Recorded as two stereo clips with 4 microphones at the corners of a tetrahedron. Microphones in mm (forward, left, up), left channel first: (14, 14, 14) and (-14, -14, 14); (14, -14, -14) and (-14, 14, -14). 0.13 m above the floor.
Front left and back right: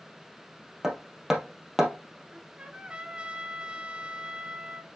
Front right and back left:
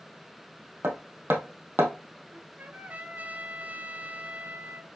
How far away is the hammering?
About 2.5 m.